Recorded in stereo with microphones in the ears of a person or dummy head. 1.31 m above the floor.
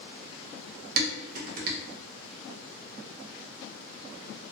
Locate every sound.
1.0 s dishes clattering: 55° right (ahead or behind), 0.6 m